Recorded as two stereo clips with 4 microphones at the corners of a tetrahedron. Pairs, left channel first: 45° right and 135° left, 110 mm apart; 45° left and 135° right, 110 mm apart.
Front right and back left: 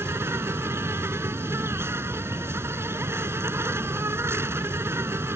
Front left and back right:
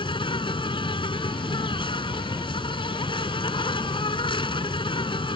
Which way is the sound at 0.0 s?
70° left.